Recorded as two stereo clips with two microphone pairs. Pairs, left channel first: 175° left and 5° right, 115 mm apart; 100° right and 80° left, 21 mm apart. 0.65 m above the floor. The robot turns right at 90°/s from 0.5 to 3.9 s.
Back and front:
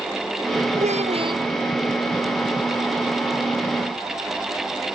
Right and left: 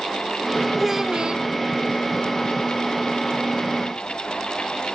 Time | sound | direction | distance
0.8 | a child speaking | 5° right | ?